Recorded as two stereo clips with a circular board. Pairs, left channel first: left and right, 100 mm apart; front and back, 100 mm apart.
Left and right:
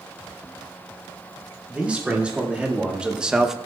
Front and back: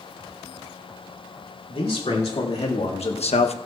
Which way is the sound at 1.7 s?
15° right.